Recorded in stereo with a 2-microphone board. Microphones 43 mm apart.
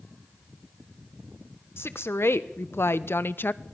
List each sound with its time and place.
1.8 s a woman speaking: 75° left (ahead or behind), 1.5 m; by 3.6 s 45° left (ahead or behind), 0.7 m